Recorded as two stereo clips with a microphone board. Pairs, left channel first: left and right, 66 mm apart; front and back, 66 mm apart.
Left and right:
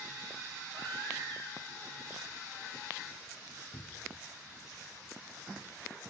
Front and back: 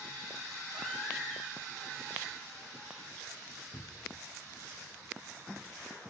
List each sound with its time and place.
0.7 s a baby crying: 90° right, 7 m
3.7 s a cupboard door: 50° left, 2.5 m